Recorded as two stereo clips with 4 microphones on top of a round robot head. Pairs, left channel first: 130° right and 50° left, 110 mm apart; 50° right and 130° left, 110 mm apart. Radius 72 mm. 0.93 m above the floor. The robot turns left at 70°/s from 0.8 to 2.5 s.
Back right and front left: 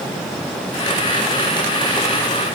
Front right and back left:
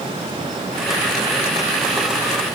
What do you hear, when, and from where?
Only background noise.